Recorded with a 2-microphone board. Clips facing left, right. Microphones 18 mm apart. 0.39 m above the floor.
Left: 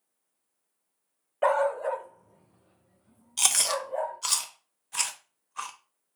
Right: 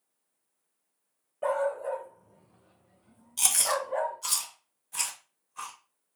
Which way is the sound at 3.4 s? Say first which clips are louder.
Left 1 dB; 25° left (ahead or behind).